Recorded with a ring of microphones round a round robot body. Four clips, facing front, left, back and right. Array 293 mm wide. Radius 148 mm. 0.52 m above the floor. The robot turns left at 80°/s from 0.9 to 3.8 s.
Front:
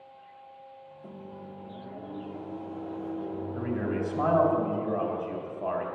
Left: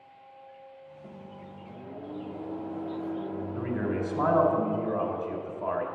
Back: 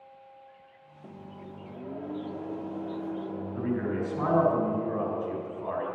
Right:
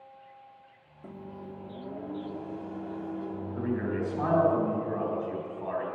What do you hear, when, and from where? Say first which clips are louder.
1.0 s a microwave: right 5 dB, even; 110° right, 1.1 m; by 4.5 s 30° left, 1.1 m
3.5 s a man speaking: even, back 1 dB; 55° left, 3.5 m; by 5.8 s 35° left, 3.5 m